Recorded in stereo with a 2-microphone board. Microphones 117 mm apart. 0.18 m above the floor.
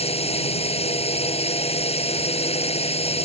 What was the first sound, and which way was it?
A drone, 60° left (ahead or behind).